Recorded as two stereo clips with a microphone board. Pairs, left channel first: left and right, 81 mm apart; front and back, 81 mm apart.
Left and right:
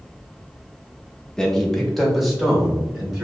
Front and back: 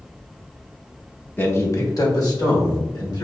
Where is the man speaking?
20° left, 0.7 m; by 3.2 s 5° right, 2.0 m.